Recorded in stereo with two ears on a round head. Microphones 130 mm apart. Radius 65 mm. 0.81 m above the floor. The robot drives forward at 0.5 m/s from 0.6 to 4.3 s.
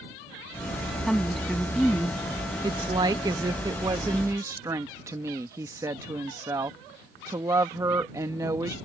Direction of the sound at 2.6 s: 30° right (ahead or behind).